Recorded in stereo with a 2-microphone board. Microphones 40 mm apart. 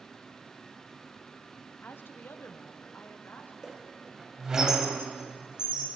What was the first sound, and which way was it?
A woman speaking, 50° left (ahead or behind).